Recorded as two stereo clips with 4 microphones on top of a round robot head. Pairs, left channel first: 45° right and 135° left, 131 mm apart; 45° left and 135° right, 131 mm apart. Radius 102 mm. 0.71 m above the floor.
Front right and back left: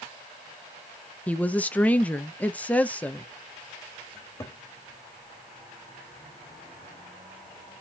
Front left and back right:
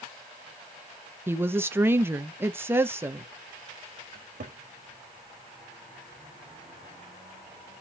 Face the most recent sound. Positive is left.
turn(degrees=-110)